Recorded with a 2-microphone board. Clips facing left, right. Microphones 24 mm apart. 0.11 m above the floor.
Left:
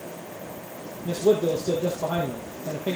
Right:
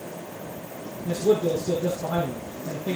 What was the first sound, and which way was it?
A man speaking, 45° left (ahead or behind).